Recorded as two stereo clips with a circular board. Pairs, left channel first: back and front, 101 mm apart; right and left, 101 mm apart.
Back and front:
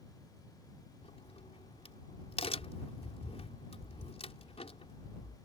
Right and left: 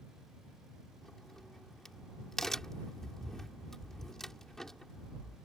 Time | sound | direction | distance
1.0 | a crack | 175° right | ?